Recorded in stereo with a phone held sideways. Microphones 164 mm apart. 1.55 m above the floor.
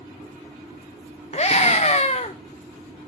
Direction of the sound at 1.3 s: 40° left (ahead or behind).